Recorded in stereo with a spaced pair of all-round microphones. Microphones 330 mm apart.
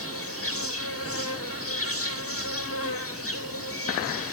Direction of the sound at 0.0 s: 40° left (ahead or behind).